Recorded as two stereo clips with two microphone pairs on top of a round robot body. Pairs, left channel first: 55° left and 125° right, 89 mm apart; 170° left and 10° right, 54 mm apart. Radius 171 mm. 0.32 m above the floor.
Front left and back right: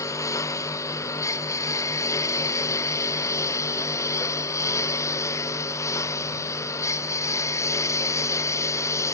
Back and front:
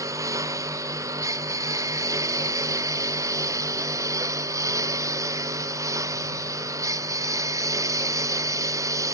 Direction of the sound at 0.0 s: 5° right.